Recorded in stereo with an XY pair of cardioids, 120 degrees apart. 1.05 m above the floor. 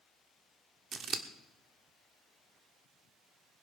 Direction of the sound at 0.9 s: 45° right.